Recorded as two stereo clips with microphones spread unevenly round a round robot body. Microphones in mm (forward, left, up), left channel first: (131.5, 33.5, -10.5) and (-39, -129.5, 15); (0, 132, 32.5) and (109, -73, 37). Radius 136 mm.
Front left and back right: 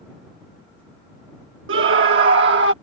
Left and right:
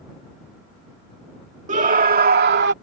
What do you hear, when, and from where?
1.7 s a scream: 115° right; by 2.7 s 100° right